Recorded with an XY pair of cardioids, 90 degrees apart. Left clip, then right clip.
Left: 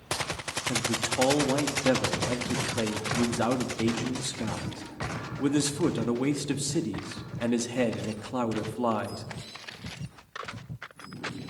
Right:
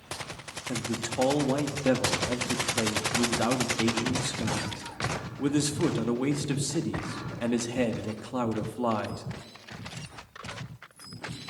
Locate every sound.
0.7 s a man speaking: 10° left, 1.7 m